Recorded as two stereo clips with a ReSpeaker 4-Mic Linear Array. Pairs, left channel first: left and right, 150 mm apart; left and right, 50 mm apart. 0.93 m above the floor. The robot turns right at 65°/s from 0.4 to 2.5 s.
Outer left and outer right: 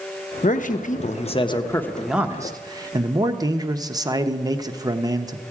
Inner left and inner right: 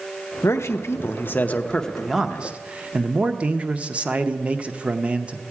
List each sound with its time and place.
0.4 s a man speaking: 75° left, 0.7 m; by 5.4 s 150° right, 0.7 m